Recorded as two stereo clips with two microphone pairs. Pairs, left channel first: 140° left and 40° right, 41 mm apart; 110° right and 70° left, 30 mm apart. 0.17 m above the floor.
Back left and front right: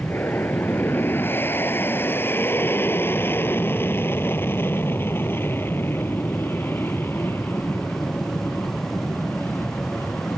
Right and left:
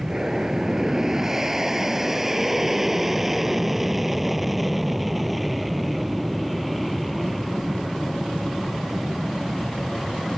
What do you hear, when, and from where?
0.0 s an aircraft: 135° left; by 10.4 s 160° left